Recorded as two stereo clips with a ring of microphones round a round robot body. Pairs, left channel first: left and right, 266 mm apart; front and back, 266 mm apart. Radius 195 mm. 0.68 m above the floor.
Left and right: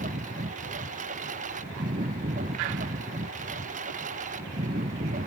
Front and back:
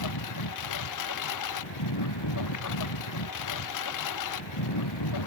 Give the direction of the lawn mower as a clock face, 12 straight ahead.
1 o'clock.